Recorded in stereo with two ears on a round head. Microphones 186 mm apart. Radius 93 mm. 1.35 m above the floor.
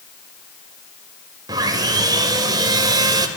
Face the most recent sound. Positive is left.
turn(degrees=-20)  # may be behind; listen again after turning